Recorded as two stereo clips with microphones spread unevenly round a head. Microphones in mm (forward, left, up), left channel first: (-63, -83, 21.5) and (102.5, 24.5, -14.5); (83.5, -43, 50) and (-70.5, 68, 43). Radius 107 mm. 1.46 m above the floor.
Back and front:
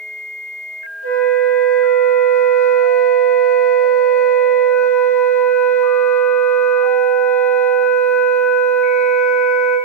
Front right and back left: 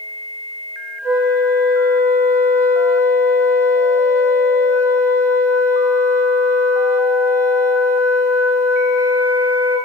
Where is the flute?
135° right, 4 m.